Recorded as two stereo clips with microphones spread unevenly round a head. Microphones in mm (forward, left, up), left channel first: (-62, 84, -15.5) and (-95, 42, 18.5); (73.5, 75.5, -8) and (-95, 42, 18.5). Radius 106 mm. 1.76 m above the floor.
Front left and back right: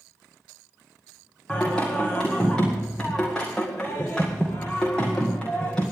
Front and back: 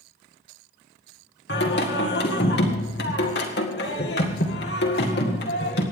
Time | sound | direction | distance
1.5 | singing | 40° right | 1.8 m